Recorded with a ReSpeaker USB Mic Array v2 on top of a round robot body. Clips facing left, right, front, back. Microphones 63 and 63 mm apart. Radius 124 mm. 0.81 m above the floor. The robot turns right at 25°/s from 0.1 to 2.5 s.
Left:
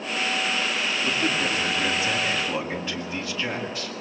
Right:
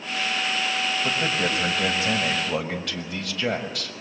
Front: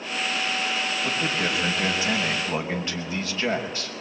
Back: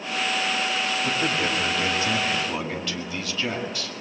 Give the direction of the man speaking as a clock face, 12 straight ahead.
3 o'clock.